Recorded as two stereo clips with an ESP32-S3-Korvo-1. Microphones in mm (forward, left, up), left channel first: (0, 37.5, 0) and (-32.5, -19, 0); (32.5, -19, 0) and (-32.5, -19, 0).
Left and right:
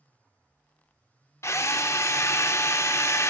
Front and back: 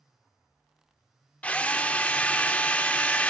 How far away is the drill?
About 0.6 m.